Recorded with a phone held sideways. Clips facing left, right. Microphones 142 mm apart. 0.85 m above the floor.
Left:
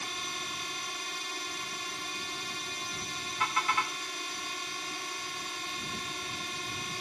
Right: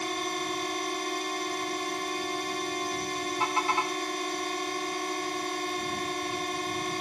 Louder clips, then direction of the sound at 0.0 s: Right 10 dB; 60° right (ahead or behind).